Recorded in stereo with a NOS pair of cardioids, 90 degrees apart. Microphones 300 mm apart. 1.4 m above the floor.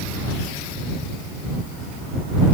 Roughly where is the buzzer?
No buzzer in this recording.